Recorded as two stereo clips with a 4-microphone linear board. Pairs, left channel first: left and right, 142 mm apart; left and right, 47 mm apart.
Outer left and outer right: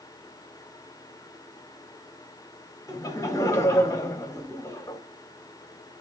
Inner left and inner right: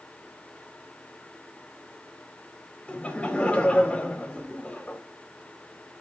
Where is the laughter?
20° left (ahead or behind), 1.7 m.